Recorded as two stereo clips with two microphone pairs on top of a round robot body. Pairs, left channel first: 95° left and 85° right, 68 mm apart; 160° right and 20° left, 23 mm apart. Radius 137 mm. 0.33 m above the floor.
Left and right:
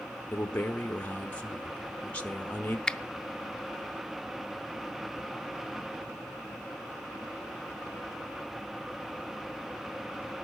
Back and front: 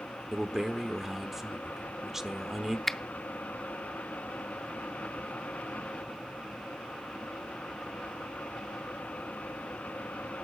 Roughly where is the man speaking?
Left.